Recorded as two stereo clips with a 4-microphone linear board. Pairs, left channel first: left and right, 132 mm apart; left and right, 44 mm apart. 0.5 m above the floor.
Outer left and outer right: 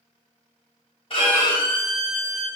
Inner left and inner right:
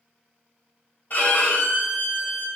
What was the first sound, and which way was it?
A violin, 45° left (ahead or behind).